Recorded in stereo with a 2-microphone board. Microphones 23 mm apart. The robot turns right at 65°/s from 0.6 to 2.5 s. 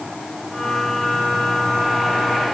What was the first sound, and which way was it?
Only background noise.